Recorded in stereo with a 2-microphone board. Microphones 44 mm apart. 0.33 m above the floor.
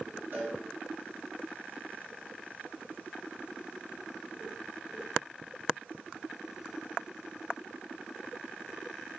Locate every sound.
0.3 s a cowbell: 45° right (ahead or behind), 2.0 m